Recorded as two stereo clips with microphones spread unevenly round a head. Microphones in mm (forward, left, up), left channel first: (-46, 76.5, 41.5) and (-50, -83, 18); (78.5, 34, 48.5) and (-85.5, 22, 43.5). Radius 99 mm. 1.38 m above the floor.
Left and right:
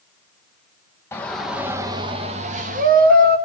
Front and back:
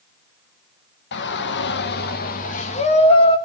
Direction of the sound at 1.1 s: 10° left.